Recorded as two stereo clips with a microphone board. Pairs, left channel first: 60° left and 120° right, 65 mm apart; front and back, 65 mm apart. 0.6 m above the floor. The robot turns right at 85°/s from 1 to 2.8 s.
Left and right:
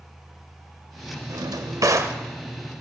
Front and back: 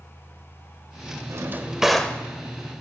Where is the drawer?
145° right, 0.5 m; by 2.2 s 65° right, 0.5 m.